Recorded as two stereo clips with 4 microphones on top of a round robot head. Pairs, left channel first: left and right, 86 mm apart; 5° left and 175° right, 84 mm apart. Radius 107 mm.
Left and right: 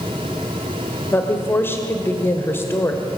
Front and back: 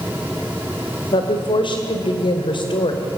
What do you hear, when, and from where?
1.1 s a woman speaking: 25° left, 2 m